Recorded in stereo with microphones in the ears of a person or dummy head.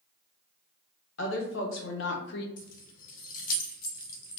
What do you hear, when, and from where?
1.2 s a woman speaking: 75° left (ahead or behind), 1.2 m; by 2.5 s 65° left (ahead or behind), 0.6 m
2.6 s keys jangling: 50° left (ahead or behind), 0.6 m